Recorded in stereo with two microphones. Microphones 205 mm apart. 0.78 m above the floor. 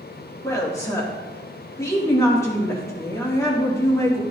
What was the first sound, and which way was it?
A woman speaking, 15° left (ahead or behind).